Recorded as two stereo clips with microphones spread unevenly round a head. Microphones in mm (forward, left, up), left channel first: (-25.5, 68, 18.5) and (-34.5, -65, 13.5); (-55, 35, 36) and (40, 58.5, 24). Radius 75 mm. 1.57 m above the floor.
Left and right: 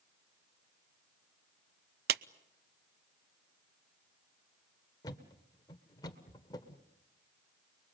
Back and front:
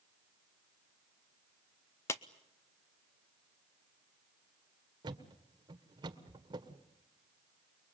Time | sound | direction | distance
2.1 | a clap | 95° right | 0.7 m
5.0 | a thud | 40° left | 1.5 m